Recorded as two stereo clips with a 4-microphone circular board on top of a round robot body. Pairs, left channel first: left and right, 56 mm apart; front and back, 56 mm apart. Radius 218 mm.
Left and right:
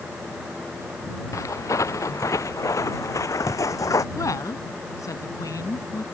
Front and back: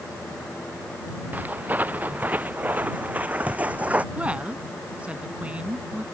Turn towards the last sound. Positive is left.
turn(degrees=110)